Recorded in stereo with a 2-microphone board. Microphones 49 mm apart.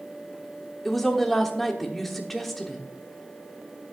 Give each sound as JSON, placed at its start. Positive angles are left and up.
{"t": 0.8, "sound": "a woman speaking", "side_deg": 5, "distance_m": 1.2}